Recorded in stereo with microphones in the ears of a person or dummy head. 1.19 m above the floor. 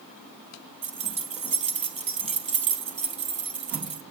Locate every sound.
0.8 s keys jangling: 35° right (ahead or behind), 0.5 m